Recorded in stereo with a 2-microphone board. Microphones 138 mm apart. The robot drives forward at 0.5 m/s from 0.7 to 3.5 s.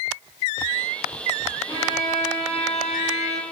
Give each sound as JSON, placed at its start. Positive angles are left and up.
{"t": 1.7, "sound": "a violin", "side_deg": 30, "distance_m": 1.7}